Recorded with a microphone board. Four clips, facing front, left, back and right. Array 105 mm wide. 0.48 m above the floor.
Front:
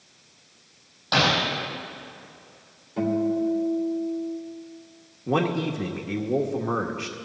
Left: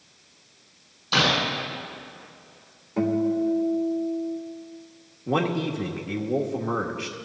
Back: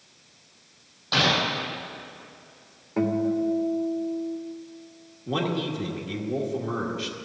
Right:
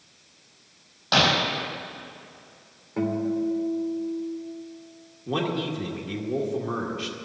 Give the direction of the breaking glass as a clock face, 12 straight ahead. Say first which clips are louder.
Right 1 dB, front 2 dB; 2 o'clock.